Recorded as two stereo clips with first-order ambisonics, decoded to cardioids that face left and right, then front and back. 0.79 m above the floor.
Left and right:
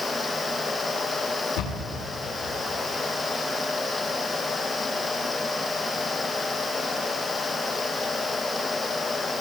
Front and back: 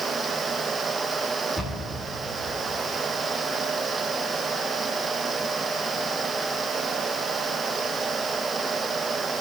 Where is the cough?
I don't hear a cough.